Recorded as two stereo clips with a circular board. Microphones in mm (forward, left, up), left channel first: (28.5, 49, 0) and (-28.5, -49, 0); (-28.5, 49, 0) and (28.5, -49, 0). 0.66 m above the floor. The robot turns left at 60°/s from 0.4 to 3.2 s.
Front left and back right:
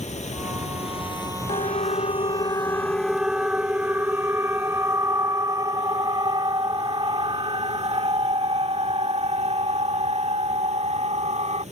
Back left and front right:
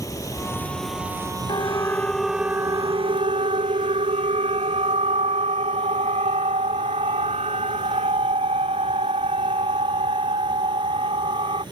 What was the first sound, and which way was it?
Running water, 60° left.